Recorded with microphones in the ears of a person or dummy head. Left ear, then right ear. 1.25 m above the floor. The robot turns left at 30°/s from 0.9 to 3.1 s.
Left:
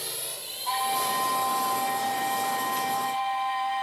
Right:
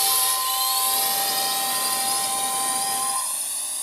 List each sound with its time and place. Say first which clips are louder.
0.0 s a drone: right 13 dB; 40° right (ahead or behind); by 3.8 s 75° right (ahead or behind)